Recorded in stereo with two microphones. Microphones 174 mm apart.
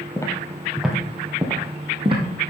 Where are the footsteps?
20° left (ahead or behind), 1.6 m; by 2.2 s 30° right (ahead or behind), 2.5 m.